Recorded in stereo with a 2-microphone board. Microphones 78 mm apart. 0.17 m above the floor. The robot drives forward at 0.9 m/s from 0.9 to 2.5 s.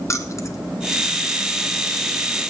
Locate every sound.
0.1 s keys jangling: 40° left (ahead or behind), 1.0 m